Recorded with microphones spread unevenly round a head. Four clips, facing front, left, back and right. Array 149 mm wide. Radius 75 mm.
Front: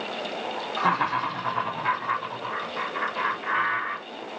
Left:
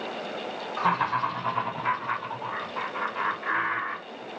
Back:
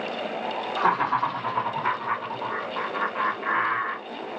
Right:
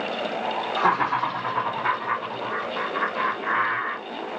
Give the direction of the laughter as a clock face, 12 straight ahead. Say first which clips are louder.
Right 2 dB, back 2 dB; 5 o'clock.